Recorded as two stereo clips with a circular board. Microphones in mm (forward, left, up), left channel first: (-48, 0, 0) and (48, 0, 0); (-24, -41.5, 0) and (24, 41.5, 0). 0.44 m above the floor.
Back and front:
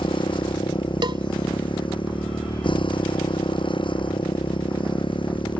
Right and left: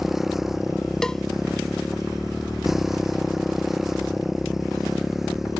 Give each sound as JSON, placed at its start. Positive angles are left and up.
{"t": 0.0, "sound": "a motorcycle", "azimuth_deg": 145}
{"t": 1.0, "sound": "a cowbell", "azimuth_deg": -35}